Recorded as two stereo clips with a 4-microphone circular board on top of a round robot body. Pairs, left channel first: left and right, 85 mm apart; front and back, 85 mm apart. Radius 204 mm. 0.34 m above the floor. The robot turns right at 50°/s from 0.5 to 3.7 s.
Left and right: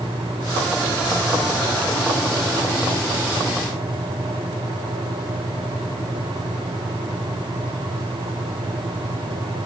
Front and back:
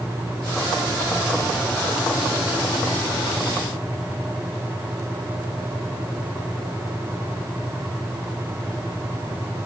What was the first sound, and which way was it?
Only background noise.